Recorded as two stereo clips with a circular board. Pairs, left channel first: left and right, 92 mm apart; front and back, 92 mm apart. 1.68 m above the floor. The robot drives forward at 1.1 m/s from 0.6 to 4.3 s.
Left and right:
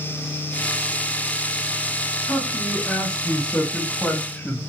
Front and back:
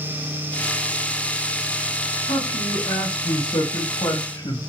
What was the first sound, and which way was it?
A man speaking, 10° left.